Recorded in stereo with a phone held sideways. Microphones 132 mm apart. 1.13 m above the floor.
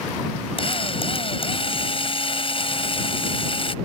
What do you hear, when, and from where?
0.6 s a drill: 45° left (ahead or behind)